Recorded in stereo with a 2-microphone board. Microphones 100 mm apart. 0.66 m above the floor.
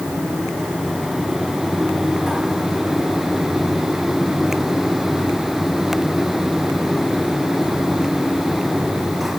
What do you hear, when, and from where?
Only background noise.